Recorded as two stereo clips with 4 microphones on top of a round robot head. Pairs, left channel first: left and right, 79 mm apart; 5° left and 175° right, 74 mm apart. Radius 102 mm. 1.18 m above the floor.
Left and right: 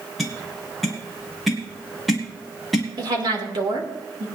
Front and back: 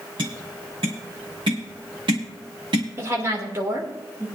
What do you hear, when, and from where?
0.2 s tapping: straight behind, 1.5 m
3.0 s a woman speaking: 120° right, 2.5 m